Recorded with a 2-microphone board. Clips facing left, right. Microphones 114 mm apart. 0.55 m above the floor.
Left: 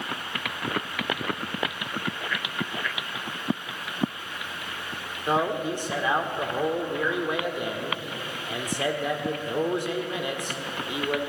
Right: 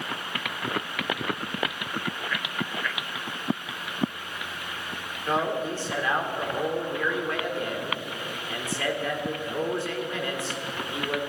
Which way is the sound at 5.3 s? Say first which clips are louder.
Left 1 dB; 15° left (ahead or behind).